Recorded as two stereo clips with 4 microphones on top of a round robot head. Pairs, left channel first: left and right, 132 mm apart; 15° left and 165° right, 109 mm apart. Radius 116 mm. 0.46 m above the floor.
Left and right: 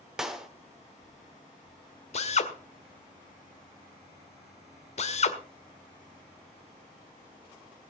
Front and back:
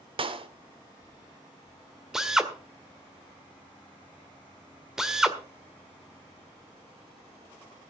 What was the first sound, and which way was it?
A clap, 175° right.